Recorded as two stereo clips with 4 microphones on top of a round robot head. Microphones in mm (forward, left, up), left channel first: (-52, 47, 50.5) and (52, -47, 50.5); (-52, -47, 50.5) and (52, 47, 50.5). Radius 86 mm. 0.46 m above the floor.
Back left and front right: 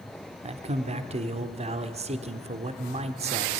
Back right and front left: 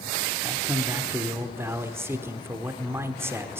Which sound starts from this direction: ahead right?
A man speaking, at 0.4 s.